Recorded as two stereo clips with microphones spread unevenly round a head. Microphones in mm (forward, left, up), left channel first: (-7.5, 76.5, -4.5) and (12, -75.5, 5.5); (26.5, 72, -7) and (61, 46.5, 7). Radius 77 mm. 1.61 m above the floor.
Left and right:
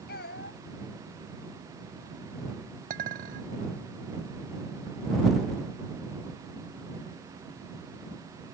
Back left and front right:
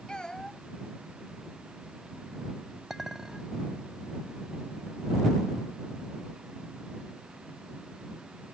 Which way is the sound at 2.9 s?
120° right.